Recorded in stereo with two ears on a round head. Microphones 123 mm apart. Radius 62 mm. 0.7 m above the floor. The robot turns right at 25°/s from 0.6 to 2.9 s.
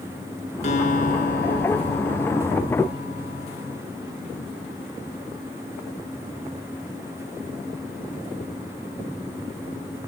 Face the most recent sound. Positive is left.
turn(degrees=110)